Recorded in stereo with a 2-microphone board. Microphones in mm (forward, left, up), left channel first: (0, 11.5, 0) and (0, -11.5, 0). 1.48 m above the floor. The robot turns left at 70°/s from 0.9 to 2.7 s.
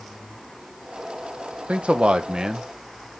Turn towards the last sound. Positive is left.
turn(degrees=-155)